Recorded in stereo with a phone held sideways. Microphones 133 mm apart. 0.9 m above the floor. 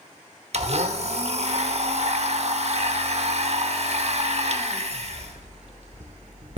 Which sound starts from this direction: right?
A blender, at 0.5 s.